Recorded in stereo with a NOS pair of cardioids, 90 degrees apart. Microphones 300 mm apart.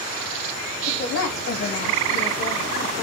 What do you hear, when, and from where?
0.9 s a woman speaking: 45° left, 1.2 m; by 3.0 s 75° left, 2 m